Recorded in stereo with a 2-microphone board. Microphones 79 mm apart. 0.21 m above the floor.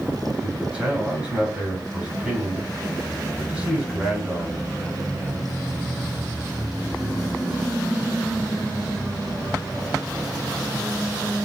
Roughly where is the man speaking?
Centre.